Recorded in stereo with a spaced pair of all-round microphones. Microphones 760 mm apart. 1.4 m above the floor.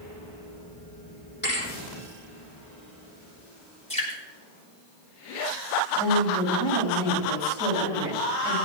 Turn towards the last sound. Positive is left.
turn(degrees=-5)  # may be behind; listen again after turning